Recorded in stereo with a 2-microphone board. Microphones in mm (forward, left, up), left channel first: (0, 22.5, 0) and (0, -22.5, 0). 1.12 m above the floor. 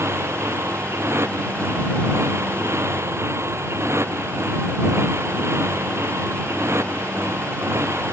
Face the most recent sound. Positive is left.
turn(degrees=-75)  # may be behind; listen again after turning